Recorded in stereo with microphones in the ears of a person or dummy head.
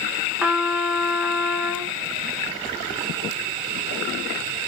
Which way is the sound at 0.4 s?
5° right (ahead or behind).